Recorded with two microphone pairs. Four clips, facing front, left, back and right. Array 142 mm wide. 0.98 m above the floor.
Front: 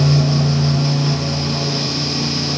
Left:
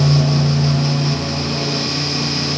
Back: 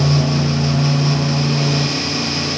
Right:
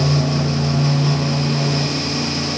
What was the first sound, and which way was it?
Only background noise.